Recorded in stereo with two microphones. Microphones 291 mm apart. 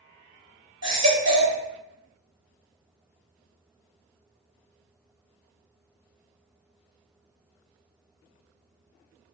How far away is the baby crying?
About 0.7 m.